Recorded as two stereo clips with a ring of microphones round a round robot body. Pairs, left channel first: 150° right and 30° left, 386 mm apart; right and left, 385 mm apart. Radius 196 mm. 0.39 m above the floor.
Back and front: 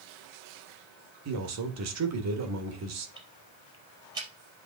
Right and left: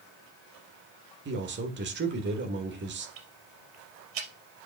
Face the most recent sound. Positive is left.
turn(degrees=110)